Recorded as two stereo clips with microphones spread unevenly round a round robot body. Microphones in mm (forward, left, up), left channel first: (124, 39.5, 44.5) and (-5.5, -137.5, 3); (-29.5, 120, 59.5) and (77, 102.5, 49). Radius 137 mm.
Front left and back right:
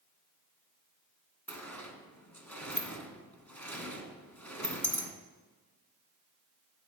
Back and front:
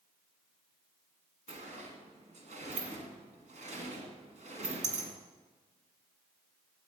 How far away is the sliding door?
About 1.6 m.